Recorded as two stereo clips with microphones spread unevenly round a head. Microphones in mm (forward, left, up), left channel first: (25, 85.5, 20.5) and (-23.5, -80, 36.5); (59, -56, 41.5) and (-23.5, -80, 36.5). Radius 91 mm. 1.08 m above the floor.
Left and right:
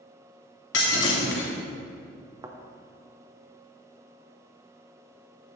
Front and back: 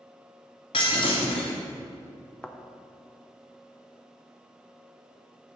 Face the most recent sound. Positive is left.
turn(degrees=-50)